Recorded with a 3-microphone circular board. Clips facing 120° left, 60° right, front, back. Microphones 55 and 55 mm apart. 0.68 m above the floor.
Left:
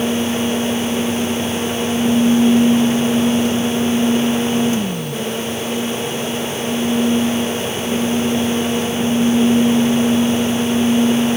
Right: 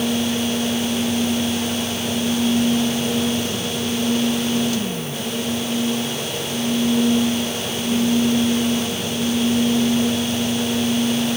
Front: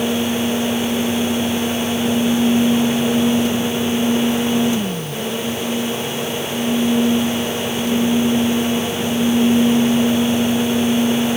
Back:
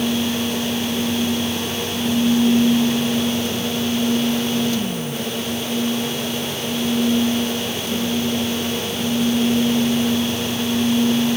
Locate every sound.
Only background noise.